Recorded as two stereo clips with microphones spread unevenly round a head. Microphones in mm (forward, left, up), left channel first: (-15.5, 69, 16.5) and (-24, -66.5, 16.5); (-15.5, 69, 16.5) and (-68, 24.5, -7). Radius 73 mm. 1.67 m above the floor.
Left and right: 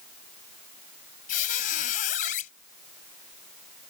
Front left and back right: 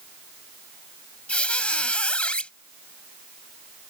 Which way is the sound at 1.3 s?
90° left.